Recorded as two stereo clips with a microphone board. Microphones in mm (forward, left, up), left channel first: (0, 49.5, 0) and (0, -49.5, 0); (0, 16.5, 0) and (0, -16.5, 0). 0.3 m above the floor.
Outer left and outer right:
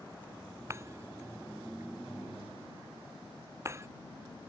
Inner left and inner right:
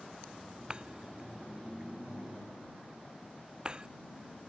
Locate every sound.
0.7 s breaking glass: 30° right (ahead or behind)